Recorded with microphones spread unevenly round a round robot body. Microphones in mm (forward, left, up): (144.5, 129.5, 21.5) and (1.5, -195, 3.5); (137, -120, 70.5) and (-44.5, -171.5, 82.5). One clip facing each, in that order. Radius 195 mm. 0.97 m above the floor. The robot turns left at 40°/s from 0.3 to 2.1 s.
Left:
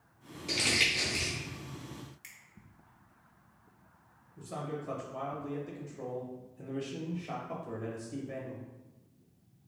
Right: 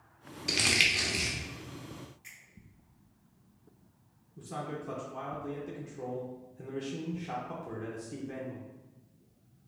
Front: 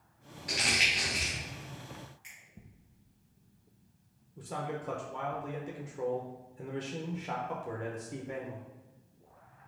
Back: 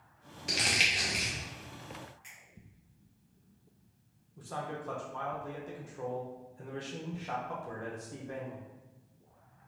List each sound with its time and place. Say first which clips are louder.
0.5 s crumpling: even, even; 145° right, 0.6 m; by 1.3 s 175° right, 0.6 m
2.2 s a finger snap: right 1 dB, back 2 dB; 125° left, 0.7 m
4.4 s a man speaking: even, front 2 dB; 45° right, 0.8 m